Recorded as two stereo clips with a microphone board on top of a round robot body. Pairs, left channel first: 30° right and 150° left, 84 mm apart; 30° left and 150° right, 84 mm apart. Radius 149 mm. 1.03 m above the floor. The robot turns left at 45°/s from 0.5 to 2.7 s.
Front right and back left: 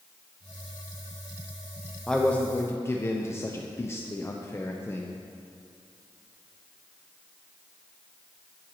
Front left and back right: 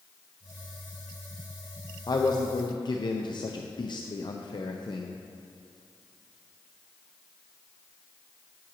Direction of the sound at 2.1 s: 55° left.